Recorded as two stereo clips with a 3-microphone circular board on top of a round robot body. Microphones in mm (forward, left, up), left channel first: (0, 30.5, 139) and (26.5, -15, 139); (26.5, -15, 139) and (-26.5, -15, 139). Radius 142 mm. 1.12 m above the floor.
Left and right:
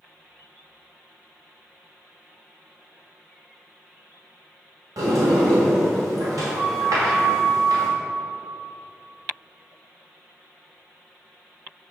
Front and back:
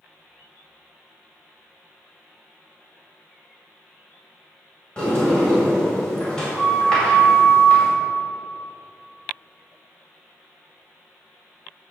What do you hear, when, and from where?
5.0 s a sliding door: 80° right, 2 m